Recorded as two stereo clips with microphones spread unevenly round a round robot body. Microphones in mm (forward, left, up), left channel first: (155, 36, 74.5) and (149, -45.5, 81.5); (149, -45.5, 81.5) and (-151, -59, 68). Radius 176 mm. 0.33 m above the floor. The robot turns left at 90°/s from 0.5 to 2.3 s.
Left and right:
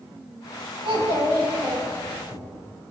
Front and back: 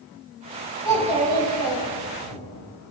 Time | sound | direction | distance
0.8 | a child speaking | 75° right | 2.5 m